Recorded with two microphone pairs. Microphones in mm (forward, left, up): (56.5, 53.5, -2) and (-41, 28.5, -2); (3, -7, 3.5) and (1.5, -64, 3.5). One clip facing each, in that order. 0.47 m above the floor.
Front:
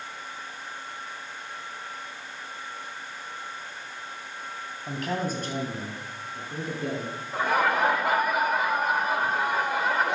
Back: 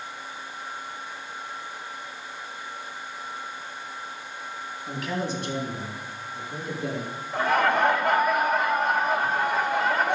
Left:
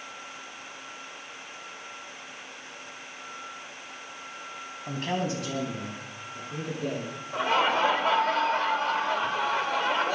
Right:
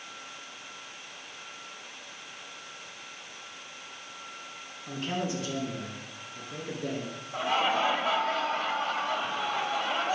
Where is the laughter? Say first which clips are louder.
Back 2 dB, left 3 dB; 100° left, 1.9 m.